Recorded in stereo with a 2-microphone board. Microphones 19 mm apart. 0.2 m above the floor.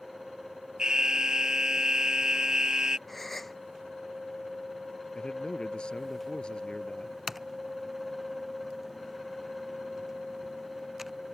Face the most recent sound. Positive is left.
turn(degrees=-15)  # may be behind; listen again after turning